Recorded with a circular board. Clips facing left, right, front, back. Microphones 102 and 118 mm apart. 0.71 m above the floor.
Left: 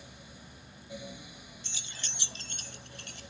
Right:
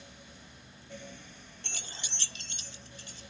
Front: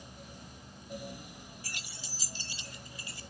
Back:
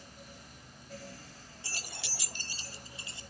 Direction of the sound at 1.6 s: 115° right.